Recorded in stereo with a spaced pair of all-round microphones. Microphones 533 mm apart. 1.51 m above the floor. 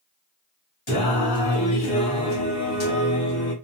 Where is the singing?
65° left (ahead or behind), 2 m.